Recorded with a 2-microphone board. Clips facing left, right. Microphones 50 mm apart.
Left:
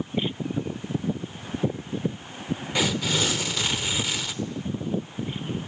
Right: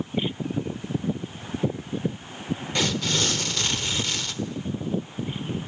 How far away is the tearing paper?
About 1.3 m.